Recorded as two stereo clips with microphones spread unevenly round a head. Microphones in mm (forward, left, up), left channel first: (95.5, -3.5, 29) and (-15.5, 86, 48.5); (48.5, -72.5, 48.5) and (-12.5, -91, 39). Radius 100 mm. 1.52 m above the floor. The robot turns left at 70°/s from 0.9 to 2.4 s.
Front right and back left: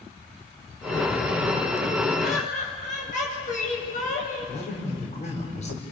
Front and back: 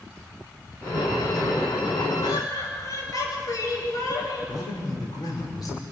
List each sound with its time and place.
2.2 s laughter: 5° left, 8.5 m; by 4.5 s 5° right, 8.5 m
4.5 s a man speaking: straight ahead, 5.5 m